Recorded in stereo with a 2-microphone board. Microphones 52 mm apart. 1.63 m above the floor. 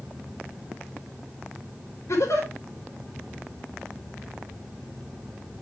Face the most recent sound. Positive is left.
turn(degrees=65)  # may be behind; listen again after turning